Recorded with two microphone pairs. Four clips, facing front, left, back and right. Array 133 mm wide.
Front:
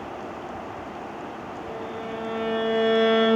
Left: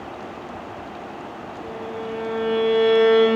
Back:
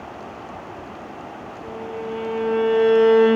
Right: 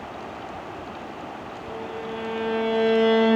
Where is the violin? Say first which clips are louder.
Left 3 dB, back 5 dB; 125° left, 5 m.